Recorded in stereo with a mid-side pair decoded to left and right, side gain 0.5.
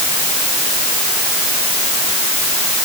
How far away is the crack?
No crack in this recording.